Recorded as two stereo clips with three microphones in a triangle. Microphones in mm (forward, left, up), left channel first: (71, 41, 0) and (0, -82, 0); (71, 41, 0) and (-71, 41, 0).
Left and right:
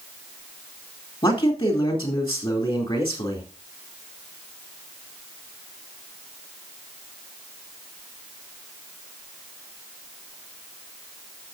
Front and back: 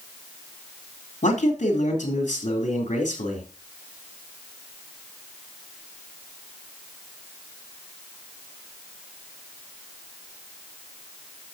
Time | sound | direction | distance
1.2 | a man speaking | 15° left | 3.5 m